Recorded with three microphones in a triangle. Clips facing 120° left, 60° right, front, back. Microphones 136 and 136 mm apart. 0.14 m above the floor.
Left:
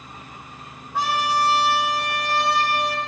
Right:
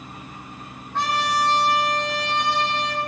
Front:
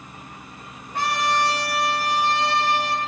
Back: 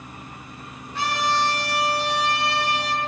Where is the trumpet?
40° left, 5 m.